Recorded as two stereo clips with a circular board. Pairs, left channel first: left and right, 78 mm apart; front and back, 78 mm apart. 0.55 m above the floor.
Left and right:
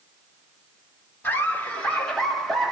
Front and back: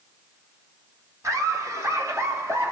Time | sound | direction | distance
1.2 | laughter | 150° left | 1.6 m